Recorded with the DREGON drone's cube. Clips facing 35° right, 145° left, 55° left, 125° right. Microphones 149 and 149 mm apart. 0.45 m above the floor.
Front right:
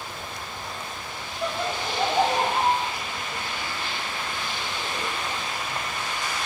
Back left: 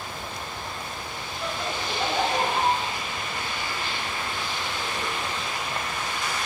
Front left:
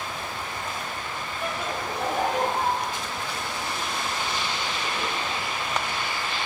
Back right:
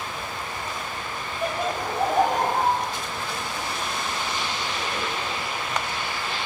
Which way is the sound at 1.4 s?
85° right.